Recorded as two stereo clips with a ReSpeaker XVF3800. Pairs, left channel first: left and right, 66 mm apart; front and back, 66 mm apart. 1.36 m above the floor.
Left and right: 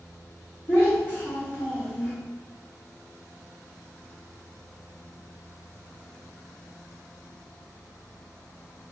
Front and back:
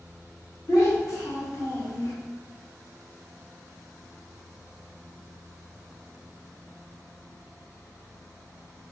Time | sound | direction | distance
0.7 | a child speaking | 30° left | 1.8 m